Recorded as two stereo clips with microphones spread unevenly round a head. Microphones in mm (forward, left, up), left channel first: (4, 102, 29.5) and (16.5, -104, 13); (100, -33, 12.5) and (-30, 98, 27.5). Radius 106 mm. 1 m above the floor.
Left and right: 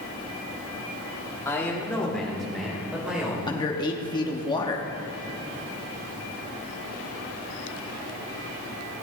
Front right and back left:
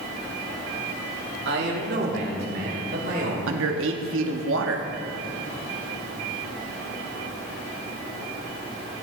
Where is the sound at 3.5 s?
165° left, 1.6 m.